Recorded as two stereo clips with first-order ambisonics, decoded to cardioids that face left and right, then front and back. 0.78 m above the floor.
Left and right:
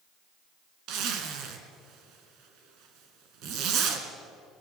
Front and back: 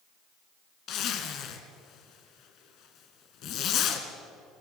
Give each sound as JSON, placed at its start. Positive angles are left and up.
{"t": 0.9, "sound": "a zipper", "azimuth_deg": -50, "distance_m": 2.5}